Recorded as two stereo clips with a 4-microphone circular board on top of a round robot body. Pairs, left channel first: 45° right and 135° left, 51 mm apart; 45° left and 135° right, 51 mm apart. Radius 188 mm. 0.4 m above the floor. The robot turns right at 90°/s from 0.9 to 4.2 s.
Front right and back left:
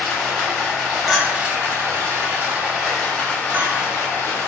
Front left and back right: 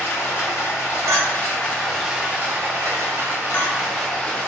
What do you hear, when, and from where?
0.0 s running water: 35° left, 1.3 m; by 4.5 s 25° right, 1.3 m
1.1 s a clink: 145° right, 0.6 m; by 4.5 s 135° left, 0.6 m